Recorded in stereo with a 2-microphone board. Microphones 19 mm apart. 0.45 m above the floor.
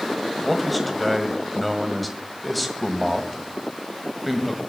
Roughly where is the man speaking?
Centre.